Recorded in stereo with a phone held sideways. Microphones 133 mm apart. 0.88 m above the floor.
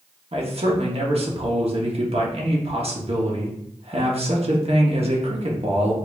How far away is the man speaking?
About 1.3 m.